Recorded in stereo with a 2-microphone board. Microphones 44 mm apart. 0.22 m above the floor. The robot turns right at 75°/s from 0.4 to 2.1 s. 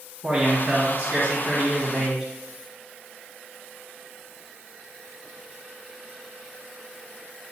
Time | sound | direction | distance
0.2 | a man speaking | 150° right | 2 m